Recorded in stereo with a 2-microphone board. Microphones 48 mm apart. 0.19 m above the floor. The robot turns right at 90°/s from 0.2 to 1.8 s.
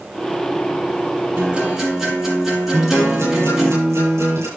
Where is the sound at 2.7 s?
75° right (ahead or behind), 8 m.